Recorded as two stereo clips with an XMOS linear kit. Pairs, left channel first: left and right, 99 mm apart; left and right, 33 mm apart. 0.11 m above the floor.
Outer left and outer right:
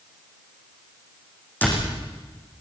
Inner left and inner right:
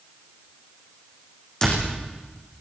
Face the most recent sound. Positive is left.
turn(degrees=15)  # may be behind; listen again after turning